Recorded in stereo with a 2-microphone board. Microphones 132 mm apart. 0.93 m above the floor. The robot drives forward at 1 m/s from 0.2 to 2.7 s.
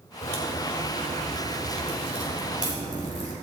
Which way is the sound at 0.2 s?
65° left (ahead or behind).